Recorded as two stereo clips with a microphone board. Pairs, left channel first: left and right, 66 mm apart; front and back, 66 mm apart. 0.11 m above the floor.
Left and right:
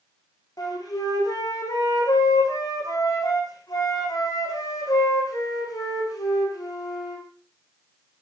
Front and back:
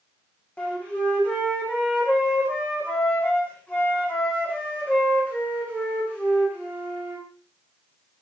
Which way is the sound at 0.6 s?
70° left.